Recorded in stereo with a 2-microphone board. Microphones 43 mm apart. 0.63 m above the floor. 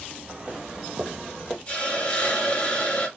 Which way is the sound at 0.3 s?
25° right (ahead or behind).